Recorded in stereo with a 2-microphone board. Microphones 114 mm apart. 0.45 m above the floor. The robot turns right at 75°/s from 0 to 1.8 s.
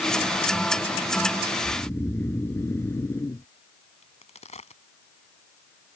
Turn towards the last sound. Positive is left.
turn(degrees=75)  # may be behind; listen again after turning